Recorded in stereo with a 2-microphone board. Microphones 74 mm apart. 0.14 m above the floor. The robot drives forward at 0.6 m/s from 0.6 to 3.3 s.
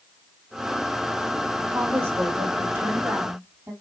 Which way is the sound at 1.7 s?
30° right (ahead or behind).